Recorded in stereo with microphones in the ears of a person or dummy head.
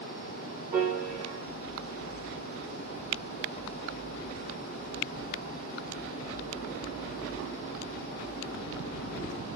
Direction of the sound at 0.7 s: 40° right (ahead or behind).